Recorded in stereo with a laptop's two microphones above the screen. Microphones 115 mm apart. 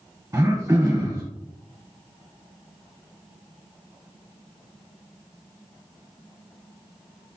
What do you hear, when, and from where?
0.3 s throat clearing: 25° right (ahead or behind), 1.4 m